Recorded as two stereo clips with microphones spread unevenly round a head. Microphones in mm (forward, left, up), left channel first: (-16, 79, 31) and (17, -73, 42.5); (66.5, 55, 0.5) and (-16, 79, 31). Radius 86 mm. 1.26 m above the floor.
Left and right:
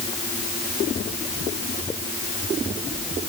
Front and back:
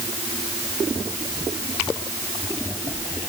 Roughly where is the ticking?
I don't hear ticking.